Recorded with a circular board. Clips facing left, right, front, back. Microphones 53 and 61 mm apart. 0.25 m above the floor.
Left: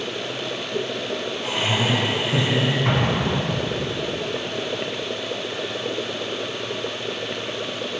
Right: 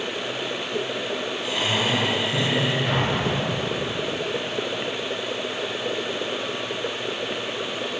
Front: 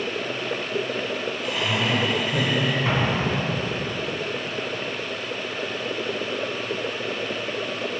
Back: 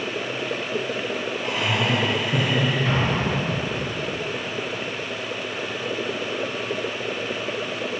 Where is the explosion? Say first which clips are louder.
Left 1 dB, even; 60° left, 2.5 m.